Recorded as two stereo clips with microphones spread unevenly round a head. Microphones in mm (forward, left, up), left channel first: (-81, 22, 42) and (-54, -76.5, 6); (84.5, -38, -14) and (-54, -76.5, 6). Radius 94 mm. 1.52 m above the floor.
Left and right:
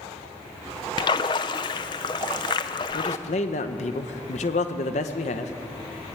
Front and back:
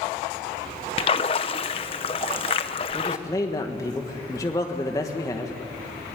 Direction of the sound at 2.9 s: 90° left.